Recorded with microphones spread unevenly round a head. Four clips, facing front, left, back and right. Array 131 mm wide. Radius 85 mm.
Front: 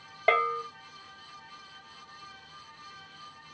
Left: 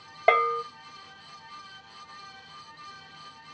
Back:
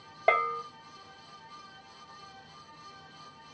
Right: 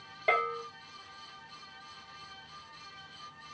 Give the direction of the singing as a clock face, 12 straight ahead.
I don't hear singing.